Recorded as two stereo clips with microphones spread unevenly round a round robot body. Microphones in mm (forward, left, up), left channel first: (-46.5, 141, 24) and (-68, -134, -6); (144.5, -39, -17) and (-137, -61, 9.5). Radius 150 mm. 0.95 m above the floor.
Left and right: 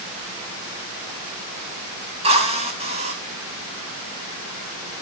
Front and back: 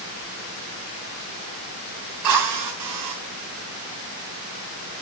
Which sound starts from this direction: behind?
A drill, at 2.2 s.